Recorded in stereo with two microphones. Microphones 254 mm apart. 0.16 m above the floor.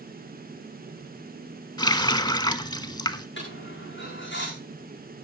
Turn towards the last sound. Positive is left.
turn(degrees=50)  # may be behind; listen again after turning